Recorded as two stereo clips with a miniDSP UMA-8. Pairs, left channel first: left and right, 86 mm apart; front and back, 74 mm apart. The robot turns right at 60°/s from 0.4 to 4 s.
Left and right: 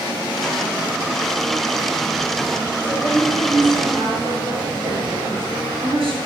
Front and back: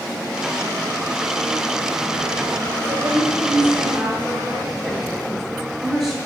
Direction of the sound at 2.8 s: 160° right.